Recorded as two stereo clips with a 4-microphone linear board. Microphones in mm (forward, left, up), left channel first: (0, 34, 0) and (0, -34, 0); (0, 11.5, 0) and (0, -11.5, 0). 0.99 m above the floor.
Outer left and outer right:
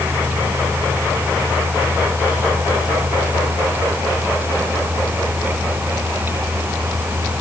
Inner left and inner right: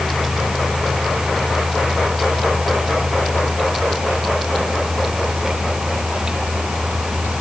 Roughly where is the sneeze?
No sneeze in this recording.